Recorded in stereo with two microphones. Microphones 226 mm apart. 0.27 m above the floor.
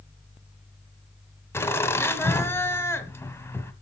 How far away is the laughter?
About 1.4 m.